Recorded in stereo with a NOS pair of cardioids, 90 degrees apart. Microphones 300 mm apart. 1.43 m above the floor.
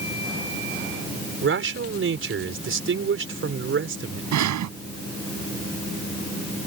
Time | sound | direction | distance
1.4 | a man speaking | 40° right | ?
4.3 | breathing | 65° right | ?